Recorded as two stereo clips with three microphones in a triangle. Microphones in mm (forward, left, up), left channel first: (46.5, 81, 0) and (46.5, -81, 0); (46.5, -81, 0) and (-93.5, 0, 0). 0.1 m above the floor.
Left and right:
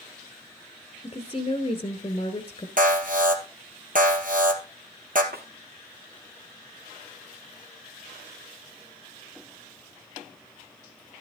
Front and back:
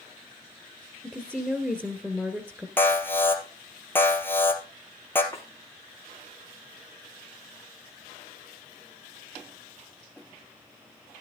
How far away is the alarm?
About 1.7 m.